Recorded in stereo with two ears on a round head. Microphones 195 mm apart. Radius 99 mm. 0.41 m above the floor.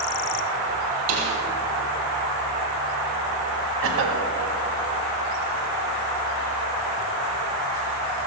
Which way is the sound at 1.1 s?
75° right (ahead or behind).